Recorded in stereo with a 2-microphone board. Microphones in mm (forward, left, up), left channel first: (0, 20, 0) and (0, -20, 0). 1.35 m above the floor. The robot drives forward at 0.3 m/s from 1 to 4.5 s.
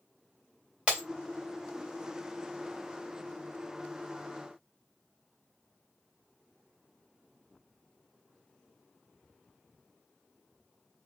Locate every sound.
0.9 s breaking glass: 30° right (ahead or behind), 3 m